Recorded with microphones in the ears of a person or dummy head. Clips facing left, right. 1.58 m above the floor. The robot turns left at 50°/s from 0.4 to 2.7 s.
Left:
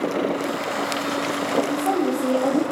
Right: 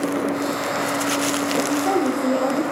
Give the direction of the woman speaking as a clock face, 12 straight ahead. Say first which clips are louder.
Right 1 dB; 5 o'clock.